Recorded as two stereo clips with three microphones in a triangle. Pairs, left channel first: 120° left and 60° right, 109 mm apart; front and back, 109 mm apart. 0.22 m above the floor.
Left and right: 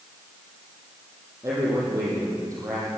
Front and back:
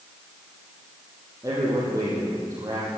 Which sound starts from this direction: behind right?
A man speaking, at 1.4 s.